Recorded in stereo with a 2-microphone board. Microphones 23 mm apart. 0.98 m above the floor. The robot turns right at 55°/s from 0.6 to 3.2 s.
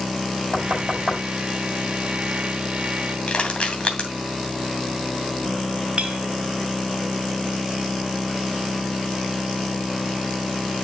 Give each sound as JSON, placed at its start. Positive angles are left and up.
{"t": 0.5, "sound": "knocking", "side_deg": -60, "distance_m": 5.0}
{"t": 3.3, "sound": "crushing", "side_deg": 50, "distance_m": 2.5}
{"t": 6.0, "sound": "a clink", "side_deg": -60, "distance_m": 1.1}